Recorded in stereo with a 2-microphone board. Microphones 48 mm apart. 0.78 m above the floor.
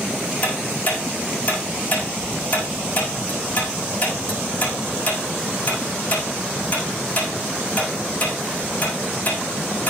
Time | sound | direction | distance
0.4 | ticking | 30° left (ahead or behind) | 7.5 m